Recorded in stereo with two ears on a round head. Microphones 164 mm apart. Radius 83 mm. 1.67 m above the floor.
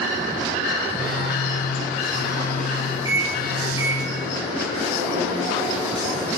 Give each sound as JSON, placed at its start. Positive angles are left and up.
{"t": 0.9, "sound": "a phone buzzing", "side_deg": 50, "distance_m": 2.0}
{"t": 3.0, "sound": "a microwave", "side_deg": -20, "distance_m": 2.0}